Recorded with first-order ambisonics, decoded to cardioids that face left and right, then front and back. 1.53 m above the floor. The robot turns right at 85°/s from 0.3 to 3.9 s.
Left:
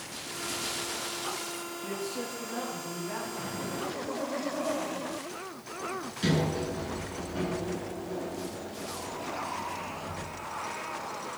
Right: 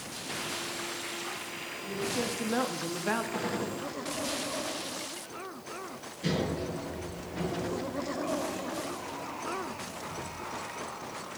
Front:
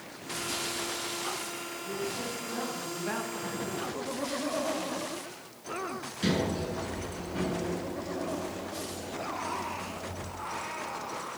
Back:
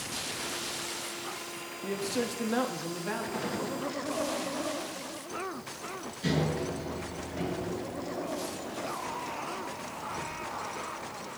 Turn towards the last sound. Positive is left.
turn(degrees=50)